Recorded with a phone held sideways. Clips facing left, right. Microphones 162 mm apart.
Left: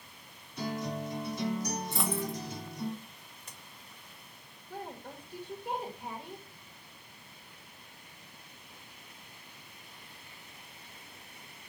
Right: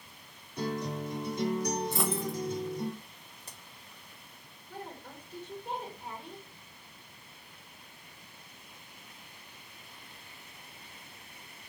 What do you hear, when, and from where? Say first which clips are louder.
0.6 s a guitar: right 1 dB; 55° right (ahead or behind), 2.5 m
1.9 s a dropped coin: right 2 dB; centre (ahead or behind), 1.1 m
3.4 s a crack: right 3 dB; 35° right (ahead or behind), 1.1 m
4.7 s a woman speaking: left 2 dB; 15° left (ahead or behind), 1.2 m